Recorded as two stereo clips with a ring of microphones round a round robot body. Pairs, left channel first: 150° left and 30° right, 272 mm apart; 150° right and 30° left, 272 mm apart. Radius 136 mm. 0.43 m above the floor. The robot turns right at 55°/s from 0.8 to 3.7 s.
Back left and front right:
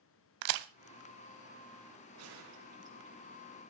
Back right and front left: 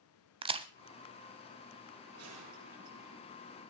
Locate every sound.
0.4 s a crack: 40° right, 0.7 m
2.1 s a gunshot: 5° right, 5 m; by 3.1 s 50° left, 5 m